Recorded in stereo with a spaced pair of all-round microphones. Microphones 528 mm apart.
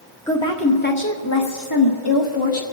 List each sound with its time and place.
0.3 s a woman speaking: 5° left (ahead or behind), 1.3 m; by 2.6 s 65° left (ahead or behind), 1.3 m